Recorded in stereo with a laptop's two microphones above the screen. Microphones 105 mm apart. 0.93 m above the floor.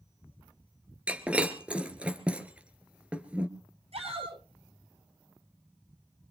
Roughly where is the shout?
Right.